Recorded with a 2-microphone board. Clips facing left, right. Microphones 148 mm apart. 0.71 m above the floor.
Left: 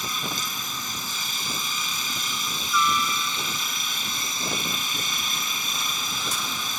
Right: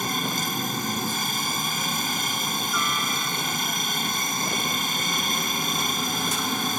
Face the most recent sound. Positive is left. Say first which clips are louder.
# right 5 dB
turn(degrees=-55)  # may be behind; listen again after turning